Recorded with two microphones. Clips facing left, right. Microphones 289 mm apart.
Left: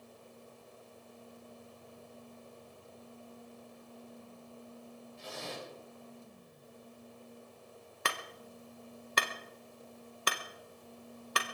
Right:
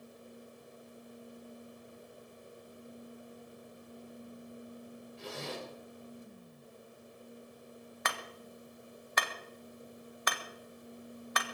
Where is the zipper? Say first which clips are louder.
Right 3 dB; 70° right (ahead or behind), 5.5 m.